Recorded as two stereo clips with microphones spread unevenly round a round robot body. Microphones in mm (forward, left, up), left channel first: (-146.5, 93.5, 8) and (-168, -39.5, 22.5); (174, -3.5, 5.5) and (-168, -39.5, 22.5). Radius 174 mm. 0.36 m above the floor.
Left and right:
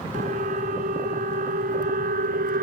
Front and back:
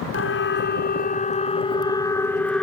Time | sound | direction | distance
0.1 | a siren | 45° right | ?